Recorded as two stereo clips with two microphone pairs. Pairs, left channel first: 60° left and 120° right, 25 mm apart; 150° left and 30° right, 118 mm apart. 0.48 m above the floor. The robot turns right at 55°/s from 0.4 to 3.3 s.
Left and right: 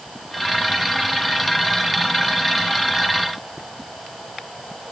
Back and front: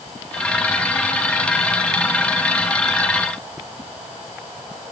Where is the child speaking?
I don't hear a child speaking.